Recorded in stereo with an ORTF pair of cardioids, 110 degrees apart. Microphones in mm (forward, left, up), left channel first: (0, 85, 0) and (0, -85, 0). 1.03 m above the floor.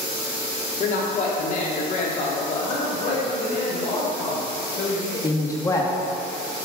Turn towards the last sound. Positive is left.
turn(degrees=20)